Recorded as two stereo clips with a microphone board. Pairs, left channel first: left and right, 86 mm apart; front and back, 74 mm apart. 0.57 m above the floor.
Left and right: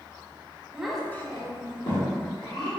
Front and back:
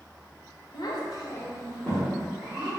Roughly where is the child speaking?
Ahead.